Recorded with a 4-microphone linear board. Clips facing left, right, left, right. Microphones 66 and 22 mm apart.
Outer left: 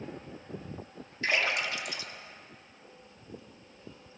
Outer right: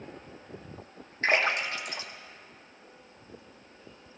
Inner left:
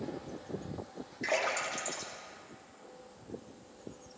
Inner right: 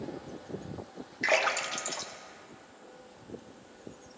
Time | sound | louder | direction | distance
1.2 | a splash | outer right 3 dB, inner right 5 dB | 40° right (ahead or behind) | 1.3 m